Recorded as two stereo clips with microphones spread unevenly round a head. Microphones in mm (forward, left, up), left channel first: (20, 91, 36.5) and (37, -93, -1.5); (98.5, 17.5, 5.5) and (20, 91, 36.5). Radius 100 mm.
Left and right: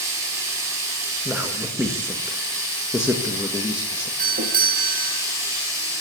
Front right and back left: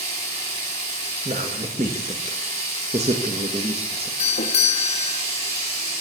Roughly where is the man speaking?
Behind.